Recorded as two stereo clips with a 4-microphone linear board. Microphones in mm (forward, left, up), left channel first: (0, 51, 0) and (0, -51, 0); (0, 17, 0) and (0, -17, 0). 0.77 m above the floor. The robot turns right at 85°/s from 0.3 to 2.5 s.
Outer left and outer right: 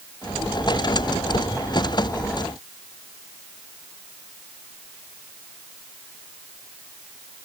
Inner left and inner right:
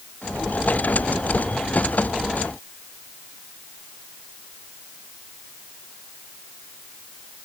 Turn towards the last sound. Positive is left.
No sound to turn to.